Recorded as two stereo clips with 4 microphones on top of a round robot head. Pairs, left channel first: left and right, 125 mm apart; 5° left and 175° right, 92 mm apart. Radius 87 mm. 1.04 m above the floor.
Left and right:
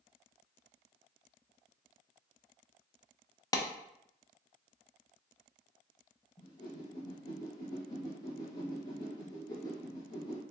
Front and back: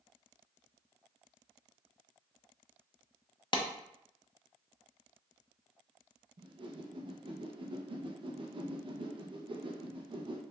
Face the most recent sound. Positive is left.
turn(degrees=150)